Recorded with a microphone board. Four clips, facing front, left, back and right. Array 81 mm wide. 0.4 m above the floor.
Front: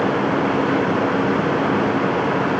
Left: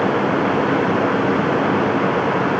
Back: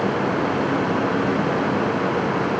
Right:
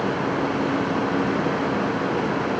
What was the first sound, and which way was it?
Only background noise.